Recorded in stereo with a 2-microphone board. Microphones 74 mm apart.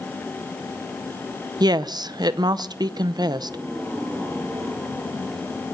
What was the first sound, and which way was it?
A woman speaking, 70° right (ahead or behind).